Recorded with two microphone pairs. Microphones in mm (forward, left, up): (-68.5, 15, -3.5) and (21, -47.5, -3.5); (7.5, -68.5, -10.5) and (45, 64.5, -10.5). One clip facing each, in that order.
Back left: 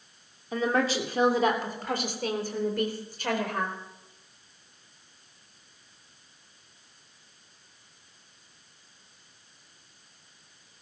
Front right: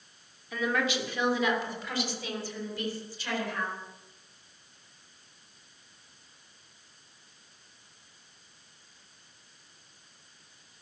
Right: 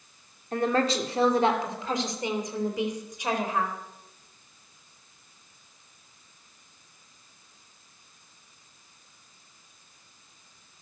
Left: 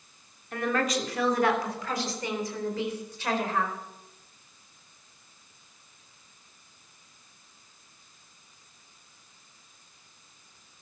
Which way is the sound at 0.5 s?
160° right.